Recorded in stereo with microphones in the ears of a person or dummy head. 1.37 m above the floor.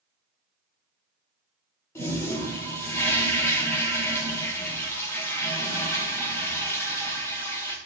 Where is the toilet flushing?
15° left (ahead or behind), 2.5 m.